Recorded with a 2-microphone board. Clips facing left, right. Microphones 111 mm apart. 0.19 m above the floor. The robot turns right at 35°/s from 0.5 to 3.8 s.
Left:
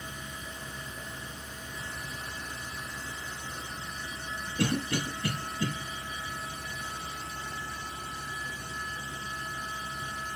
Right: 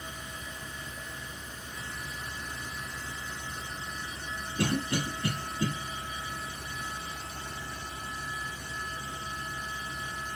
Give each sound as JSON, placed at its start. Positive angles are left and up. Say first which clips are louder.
{"t": 4.6, "sound": "a cough", "louder": "even", "side_deg": -25, "distance_m": 1.5}